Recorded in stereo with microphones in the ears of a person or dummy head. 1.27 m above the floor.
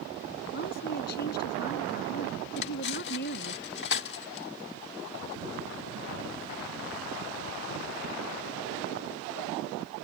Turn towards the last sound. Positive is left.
turn(degrees=60)  # may be behind; listen again after turning